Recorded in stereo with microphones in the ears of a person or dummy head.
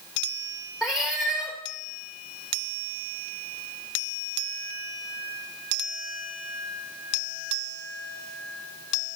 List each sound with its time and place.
0.8 s a cat meowing: 5° right (ahead or behind), 1.2 m